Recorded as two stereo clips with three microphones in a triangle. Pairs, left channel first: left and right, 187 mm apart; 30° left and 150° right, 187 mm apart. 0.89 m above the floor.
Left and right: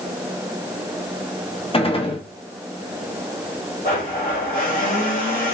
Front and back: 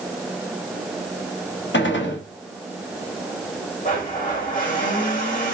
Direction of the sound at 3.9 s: 60° left.